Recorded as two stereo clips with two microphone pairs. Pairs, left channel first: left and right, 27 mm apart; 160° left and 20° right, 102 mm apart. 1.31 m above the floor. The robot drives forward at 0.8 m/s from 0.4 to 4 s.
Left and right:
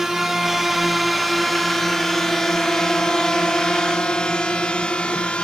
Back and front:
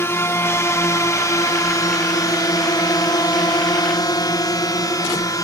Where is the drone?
155° right; by 5.4 s 120° left.